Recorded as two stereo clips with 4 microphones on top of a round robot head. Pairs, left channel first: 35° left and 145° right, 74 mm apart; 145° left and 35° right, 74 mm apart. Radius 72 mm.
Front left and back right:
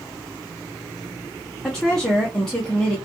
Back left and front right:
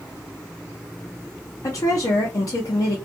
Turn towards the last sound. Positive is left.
turn(degrees=120)